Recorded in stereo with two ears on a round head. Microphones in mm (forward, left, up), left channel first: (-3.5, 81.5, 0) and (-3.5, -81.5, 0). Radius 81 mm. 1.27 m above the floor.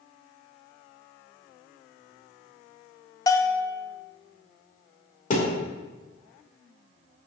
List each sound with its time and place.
3.3 s a bell: 20° left (ahead or behind), 0.6 m
5.3 s a thud: 45° left (ahead or behind), 2 m